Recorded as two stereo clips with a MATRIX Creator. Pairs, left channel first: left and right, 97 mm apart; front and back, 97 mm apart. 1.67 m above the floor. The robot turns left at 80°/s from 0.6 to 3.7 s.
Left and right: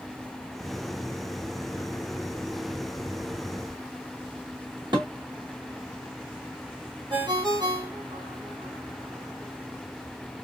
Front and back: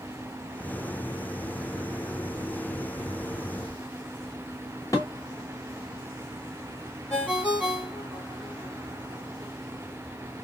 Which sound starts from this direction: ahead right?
Dishes clattering, at 4.9 s.